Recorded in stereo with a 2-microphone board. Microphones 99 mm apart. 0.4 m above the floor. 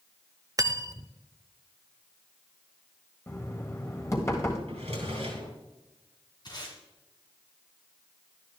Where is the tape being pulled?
45° left (ahead or behind), 2.5 m.